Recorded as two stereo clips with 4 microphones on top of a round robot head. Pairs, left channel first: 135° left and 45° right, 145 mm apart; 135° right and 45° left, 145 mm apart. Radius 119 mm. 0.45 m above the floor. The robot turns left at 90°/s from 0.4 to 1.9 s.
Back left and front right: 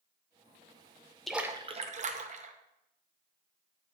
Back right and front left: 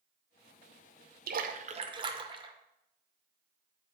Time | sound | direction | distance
1.3 | a splash | 45° left | 0.7 m